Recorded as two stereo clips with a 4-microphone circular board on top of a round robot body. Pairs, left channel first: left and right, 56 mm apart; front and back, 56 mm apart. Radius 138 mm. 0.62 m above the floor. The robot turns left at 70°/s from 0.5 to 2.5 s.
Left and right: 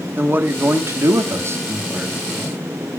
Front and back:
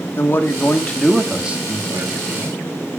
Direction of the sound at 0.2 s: 45° right.